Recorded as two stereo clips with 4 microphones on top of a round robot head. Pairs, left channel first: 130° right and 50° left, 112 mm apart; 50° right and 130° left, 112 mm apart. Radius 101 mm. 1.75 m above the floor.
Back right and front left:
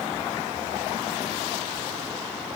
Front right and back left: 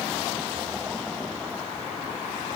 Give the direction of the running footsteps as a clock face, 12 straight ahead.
No running footsteps in this recording.